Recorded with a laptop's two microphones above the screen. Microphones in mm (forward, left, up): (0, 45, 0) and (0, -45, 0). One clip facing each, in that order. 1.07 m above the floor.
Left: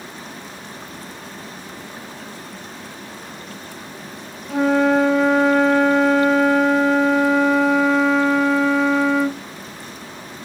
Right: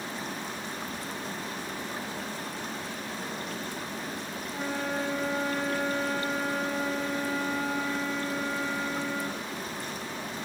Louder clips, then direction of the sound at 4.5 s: Left 17 dB; 70° left (ahead or behind).